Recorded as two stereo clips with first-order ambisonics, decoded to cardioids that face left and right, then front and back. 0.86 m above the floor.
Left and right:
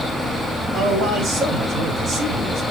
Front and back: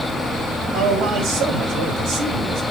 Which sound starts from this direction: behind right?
A man speaking, at 0.7 s.